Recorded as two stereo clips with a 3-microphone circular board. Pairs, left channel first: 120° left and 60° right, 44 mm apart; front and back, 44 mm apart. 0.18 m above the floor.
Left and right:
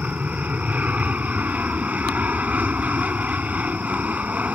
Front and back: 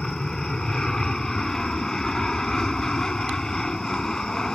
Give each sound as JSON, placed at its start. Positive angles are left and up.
{"t": 0.0, "sound": "an aircraft", "azimuth_deg": -65}